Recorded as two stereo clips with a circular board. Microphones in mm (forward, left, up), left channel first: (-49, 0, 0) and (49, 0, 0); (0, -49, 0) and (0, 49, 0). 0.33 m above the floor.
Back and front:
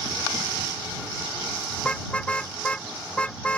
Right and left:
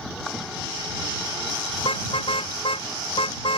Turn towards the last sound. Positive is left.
turn(degrees=-105)